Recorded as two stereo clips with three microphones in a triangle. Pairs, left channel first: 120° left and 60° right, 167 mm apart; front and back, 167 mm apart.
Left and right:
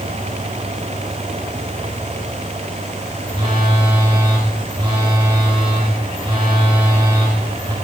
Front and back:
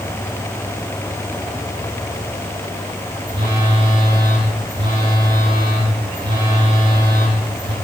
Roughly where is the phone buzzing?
Behind right.